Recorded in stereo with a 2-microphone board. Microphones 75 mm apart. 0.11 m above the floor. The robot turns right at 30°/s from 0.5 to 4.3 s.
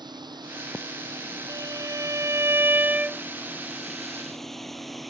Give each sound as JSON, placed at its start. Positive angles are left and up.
{"t": 0.0, "sound": "a drone", "side_deg": -70}
{"t": 1.5, "sound": "a violin", "azimuth_deg": -70}